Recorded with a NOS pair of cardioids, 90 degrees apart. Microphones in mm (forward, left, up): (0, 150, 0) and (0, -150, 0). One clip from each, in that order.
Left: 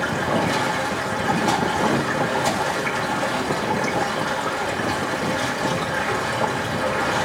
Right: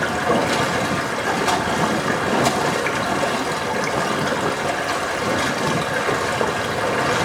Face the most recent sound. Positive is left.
turn(degrees=-45)